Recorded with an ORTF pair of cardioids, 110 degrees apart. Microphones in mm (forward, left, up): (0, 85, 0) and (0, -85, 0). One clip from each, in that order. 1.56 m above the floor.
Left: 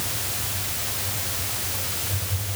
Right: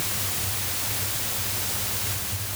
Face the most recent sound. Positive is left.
No sound to turn to.